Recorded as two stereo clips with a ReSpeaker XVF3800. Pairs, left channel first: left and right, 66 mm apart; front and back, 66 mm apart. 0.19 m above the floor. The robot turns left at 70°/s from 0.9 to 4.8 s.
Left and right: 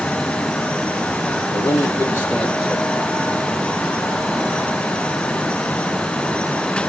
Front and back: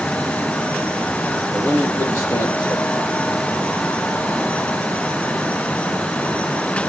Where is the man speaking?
75° left, 5 m; by 3.1 s 35° right, 5 m.